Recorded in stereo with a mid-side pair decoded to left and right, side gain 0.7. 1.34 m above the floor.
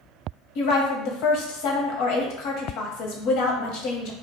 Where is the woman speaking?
70° left, 0.8 m.